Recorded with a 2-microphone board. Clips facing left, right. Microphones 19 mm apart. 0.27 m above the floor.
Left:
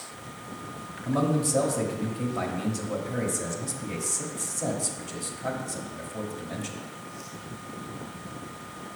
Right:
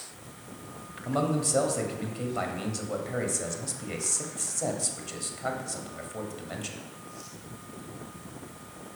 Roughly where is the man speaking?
Right.